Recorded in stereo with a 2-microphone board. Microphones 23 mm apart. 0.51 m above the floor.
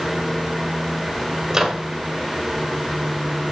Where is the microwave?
25° right (ahead or behind), 2 m.